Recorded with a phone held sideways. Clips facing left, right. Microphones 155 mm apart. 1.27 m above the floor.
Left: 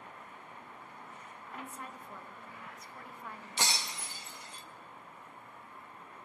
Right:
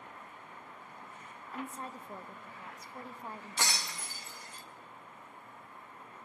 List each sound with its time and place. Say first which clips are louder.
1.5 s a woman speaking: right 4 dB; 30° right (ahead or behind), 1.2 m
3.6 s breaking glass: left 1 dB; 20° left (ahead or behind), 1.0 m